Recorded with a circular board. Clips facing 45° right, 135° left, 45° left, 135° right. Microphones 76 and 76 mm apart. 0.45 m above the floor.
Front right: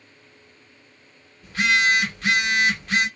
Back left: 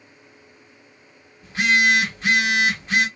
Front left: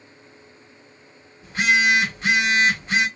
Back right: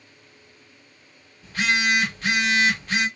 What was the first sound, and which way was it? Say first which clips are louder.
A phone buzzing: back left 2 dB, front left 3 dB; 85° left.